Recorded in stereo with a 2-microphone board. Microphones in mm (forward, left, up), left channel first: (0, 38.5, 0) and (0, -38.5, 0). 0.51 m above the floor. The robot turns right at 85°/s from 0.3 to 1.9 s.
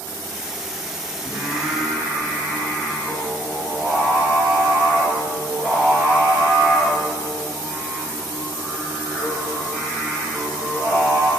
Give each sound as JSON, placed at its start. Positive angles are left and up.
{"t": 1.2, "sound": "singing", "azimuth_deg": -45, "distance_m": 1.3}